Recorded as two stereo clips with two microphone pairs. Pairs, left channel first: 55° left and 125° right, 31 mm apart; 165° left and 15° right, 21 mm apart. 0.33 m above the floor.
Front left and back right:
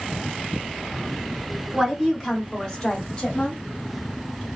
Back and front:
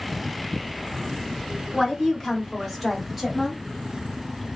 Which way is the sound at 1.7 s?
175° left.